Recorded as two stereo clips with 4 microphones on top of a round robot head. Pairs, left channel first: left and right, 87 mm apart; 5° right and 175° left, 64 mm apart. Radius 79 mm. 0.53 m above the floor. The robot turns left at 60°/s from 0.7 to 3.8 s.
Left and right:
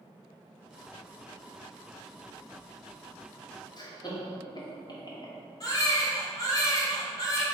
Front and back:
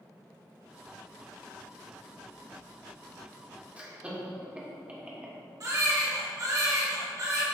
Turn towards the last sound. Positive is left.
turn(degrees=140)